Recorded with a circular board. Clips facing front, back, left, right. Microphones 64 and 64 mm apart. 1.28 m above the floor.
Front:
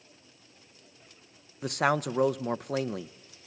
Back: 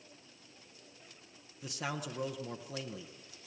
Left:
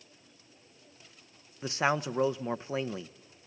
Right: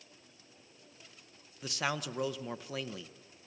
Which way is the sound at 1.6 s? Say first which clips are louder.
Front 13 dB, left 7 dB; 30° left.